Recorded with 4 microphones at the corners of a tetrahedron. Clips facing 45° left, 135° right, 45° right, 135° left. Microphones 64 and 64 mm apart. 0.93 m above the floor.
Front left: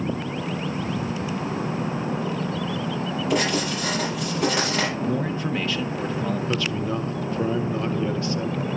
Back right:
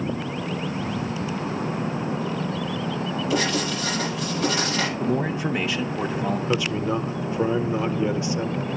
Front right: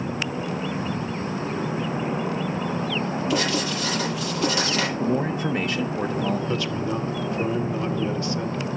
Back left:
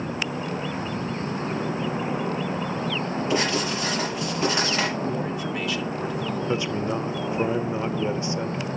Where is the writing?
75° left, 7 m.